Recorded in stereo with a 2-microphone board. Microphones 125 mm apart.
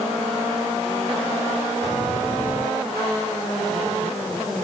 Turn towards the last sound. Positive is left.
No sound to turn to.